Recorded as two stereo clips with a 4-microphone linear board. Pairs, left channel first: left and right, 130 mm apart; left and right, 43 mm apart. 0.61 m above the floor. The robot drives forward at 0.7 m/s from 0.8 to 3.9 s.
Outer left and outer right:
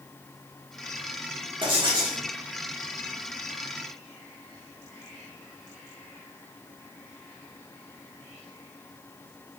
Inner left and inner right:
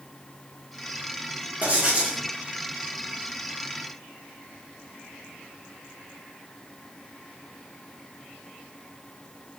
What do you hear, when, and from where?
1.6 s writing: 40° right (ahead or behind), 1.3 m; by 2.2 s 30° right (ahead or behind), 1.6 m